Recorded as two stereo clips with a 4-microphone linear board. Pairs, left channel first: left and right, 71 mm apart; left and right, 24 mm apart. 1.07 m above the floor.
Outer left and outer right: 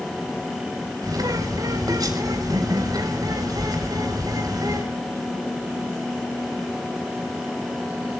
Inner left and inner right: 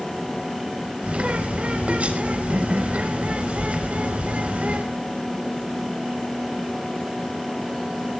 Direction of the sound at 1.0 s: 65° right (ahead or behind).